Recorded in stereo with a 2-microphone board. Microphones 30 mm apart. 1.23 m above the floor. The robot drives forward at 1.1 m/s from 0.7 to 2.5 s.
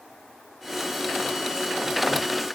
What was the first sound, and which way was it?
Only background noise.